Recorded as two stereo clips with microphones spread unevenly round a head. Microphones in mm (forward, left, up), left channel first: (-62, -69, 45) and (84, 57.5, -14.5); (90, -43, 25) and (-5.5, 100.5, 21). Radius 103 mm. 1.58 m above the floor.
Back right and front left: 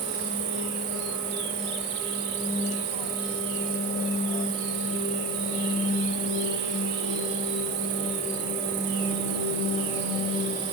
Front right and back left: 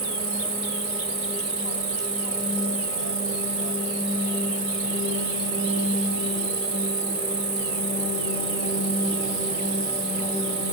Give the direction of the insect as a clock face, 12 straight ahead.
10 o'clock.